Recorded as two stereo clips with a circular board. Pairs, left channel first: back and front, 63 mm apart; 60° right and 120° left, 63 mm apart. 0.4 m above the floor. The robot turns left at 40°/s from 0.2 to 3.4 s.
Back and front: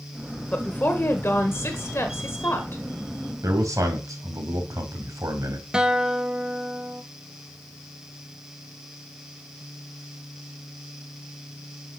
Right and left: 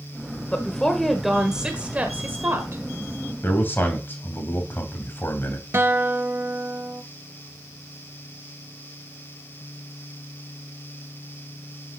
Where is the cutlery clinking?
No cutlery clinking in this recording.